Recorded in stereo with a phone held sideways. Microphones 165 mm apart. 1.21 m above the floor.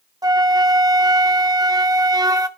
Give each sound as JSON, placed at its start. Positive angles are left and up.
{"t": 0.2, "sound": "a flute", "side_deg": -25, "distance_m": 0.5}